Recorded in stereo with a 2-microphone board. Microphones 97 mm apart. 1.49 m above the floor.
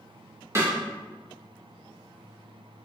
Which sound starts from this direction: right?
A snare drum, at 0.6 s.